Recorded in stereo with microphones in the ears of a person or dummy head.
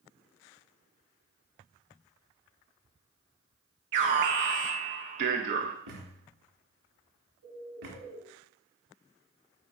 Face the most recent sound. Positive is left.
turn(degrees=-70)  # may be behind; listen again after turning